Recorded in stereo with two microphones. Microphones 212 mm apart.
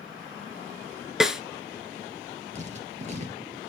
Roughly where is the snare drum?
Centre.